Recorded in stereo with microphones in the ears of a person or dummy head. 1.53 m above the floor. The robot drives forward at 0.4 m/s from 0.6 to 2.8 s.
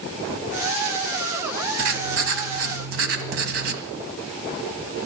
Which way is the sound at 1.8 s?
45° right (ahead or behind).